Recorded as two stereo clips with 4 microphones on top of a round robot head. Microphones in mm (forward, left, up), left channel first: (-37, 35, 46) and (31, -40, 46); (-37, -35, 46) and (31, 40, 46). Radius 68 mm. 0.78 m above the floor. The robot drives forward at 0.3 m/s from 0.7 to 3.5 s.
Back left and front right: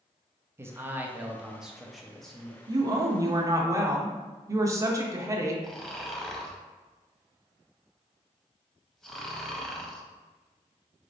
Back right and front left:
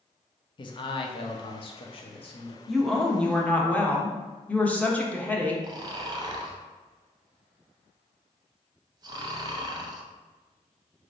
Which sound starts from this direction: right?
A man speaking, at 0.6 s.